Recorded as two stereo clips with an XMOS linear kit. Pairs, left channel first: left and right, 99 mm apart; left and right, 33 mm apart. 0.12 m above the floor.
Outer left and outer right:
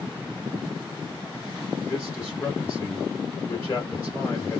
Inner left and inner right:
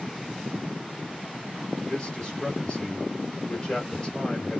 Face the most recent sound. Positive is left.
turn(degrees=20)  # may be behind; listen again after turning